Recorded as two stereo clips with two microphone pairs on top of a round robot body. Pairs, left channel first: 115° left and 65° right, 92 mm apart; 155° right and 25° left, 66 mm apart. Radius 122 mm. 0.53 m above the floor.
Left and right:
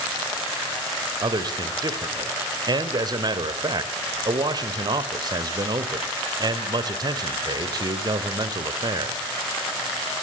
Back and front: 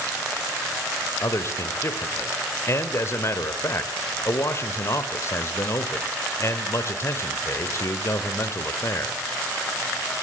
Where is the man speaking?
100° right, 2.5 m.